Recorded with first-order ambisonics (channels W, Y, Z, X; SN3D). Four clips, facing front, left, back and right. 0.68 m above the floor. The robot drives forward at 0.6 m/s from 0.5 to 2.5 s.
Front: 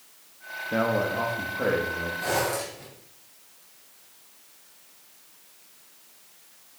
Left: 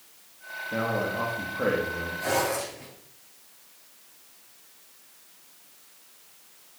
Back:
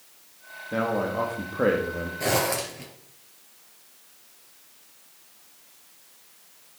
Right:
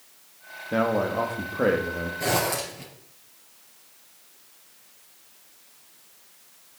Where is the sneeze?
No sneeze in this recording.